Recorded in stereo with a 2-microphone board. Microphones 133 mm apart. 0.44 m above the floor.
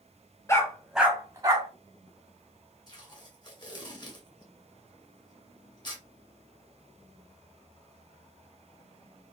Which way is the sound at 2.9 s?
30° left (ahead or behind).